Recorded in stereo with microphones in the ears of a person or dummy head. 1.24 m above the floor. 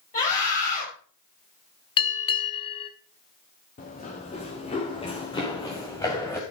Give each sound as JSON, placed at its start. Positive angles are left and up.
{"t": 0.1, "sound": "a scream", "side_deg": 40, "distance_m": 6.0}
{"t": 2.0, "sound": "a bell", "side_deg": 25, "distance_m": 1.4}
{"t": 3.8, "sound": "running footsteps", "side_deg": 40, "distance_m": 3.5}